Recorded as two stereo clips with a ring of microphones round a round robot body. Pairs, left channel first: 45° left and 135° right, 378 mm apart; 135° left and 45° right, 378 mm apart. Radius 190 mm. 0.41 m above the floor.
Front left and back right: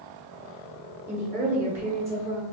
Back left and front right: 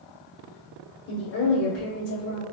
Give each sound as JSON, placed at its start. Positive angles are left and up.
{"t": 1.1, "sound": "a woman speaking", "azimuth_deg": 150, "distance_m": 0.8}